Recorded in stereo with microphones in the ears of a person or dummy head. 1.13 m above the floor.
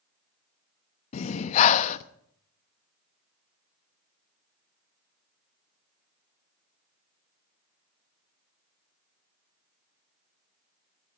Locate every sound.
1.1 s breathing: 40° left (ahead or behind), 0.6 m